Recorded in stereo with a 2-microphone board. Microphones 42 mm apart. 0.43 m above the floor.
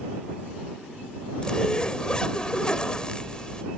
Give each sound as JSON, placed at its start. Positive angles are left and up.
{"t": 1.4, "sound": "a zipper", "side_deg": 20}